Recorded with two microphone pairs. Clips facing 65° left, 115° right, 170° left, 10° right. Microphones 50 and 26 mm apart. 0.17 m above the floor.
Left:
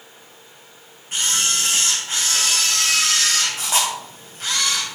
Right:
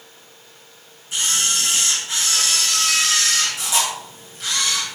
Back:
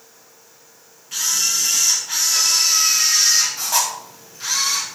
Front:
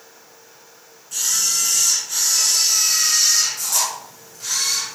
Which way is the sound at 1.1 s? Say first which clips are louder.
Even, back 1 dB; 110° left.